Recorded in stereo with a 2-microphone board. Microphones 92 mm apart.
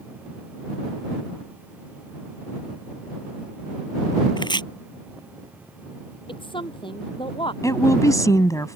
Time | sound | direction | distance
4.4 | chopping | 55° left (ahead or behind) | ?
6.3 | a woman speaking | 65° left (ahead or behind) | ?
7.6 | a woman speaking | 40° left (ahead or behind) | ?